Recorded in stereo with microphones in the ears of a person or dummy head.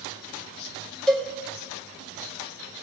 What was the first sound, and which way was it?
A cowbell, centre (ahead or behind).